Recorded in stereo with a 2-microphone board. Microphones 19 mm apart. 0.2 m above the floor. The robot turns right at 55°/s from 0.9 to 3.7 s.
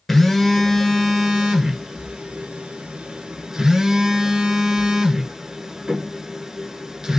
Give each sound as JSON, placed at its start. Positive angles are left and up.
{"t": 0.1, "sound": "a phone buzzing", "azimuth_deg": 170, "distance_m": 1.1}